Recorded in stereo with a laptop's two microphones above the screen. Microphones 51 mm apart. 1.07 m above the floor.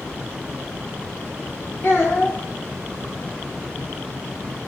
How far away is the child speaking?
About 1.7 m.